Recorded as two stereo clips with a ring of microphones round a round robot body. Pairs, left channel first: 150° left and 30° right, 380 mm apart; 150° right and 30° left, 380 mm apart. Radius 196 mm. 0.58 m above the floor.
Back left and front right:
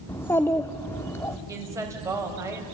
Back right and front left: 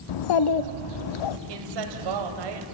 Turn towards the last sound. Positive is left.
turn(degrees=50)